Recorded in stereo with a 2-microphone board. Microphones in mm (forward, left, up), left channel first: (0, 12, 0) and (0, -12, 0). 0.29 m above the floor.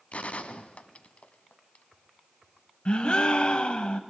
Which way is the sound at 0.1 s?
65° left (ahead or behind).